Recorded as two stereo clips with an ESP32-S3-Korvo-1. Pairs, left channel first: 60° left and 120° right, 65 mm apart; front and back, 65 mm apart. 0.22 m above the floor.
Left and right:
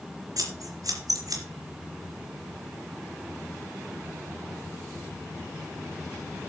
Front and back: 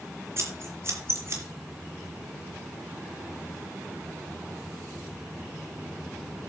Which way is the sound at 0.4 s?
135° right.